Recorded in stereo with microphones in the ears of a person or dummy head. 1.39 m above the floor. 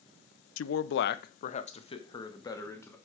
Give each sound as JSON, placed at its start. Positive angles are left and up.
{"t": 0.6, "sound": "a man speaking", "side_deg": 85, "distance_m": 0.6}